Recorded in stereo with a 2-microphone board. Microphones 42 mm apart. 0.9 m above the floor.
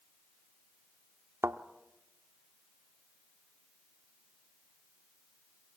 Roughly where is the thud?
Right.